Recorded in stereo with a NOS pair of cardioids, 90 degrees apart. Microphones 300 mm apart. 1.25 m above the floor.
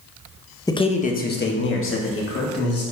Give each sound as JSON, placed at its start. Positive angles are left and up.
{"t": 0.7, "sound": "a man speaking", "azimuth_deg": 10, "distance_m": 1.1}